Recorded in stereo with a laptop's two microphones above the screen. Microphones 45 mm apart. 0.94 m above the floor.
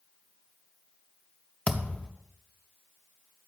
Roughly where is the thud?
Left.